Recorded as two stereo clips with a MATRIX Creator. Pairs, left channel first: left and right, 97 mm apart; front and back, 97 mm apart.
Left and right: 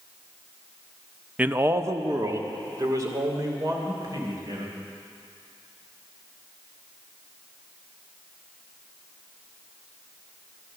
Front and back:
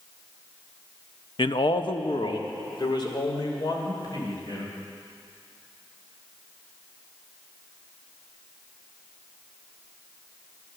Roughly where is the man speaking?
Ahead.